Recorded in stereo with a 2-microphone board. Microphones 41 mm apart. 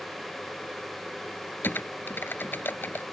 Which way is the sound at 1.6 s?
60° left (ahead or behind).